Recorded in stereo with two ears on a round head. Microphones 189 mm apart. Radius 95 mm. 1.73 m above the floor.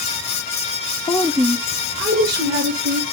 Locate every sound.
1.1 s a woman speaking: 20° left (ahead or behind), 0.7 m; by 3.0 s 60° right (ahead or behind), 3 m